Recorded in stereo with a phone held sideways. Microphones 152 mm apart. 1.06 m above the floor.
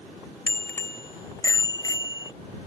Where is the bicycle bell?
15° left (ahead or behind); by 2.3 s 25° left (ahead or behind).